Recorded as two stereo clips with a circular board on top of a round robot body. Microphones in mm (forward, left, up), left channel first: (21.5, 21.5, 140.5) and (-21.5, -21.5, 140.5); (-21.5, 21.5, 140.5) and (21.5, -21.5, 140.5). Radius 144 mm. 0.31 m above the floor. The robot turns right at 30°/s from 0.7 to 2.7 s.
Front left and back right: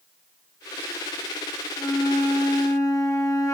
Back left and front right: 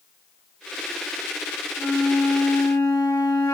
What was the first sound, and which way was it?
A flute, 50° left.